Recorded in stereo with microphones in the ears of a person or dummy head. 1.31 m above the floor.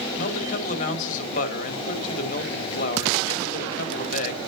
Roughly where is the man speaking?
Left.